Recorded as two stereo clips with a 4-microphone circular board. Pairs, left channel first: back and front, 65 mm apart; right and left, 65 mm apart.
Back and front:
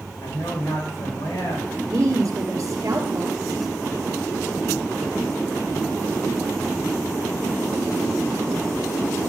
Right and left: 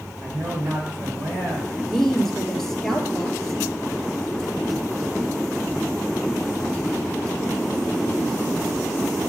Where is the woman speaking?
5° right, 2.0 m.